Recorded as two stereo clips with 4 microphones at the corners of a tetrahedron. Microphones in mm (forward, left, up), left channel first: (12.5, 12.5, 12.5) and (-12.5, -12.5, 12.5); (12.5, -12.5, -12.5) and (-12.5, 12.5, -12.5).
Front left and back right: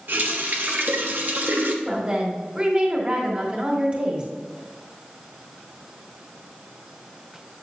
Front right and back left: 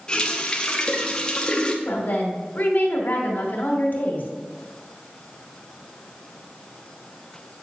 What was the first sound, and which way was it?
A running tap, 115° right.